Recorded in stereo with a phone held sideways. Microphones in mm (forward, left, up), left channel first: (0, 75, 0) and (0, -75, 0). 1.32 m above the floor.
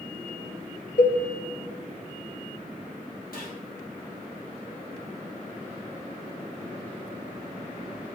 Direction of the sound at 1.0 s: 65° left (ahead or behind).